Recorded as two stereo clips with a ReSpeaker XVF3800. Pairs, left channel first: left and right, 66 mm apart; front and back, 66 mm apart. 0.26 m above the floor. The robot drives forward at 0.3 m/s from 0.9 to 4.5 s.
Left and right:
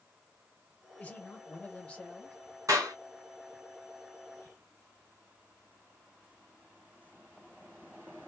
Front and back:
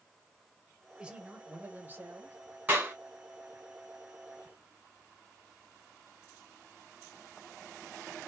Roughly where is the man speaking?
Behind left.